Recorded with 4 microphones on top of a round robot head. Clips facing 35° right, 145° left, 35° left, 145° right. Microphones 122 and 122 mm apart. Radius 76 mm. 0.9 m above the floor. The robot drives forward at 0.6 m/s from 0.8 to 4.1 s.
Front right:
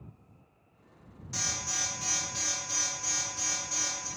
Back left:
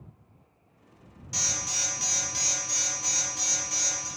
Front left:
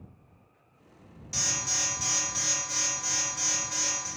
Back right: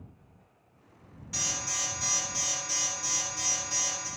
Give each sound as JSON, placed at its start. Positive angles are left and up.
{"t": 1.3, "sound": "an alarm", "azimuth_deg": 70, "distance_m": 0.8}